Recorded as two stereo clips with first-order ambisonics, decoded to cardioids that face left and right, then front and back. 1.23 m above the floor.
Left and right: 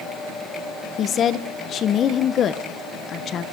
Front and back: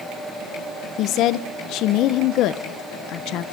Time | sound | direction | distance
1.0 | a woman speaking | 35° left | 1.0 m